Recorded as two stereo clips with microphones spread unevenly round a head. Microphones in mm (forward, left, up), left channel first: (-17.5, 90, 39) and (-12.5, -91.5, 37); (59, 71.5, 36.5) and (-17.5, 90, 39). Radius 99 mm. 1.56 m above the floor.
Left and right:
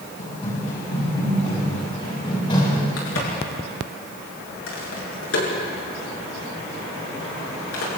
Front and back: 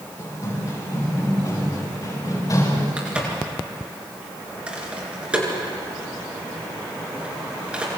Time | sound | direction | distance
0.2 | running footsteps | 40° left | 8.5 m
3.0 | a crack | 90° left | 7 m